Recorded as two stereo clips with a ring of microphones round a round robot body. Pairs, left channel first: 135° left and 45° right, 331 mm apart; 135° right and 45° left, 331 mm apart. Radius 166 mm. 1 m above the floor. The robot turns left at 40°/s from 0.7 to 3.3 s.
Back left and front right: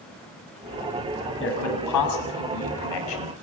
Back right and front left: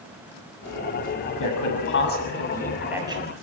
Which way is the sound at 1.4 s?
170° right.